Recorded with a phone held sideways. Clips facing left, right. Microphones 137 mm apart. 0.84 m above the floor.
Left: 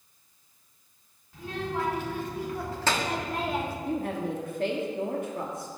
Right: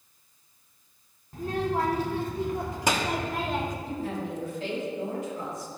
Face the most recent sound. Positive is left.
turn(degrees=55)  # may be behind; listen again after turning